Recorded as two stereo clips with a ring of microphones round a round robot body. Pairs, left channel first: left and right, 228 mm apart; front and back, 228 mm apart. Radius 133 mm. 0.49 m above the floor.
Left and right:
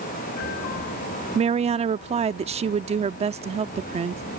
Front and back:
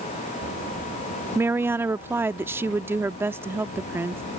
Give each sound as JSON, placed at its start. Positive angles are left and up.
{"t": 1.4, "sound": "a woman speaking", "azimuth_deg": -110}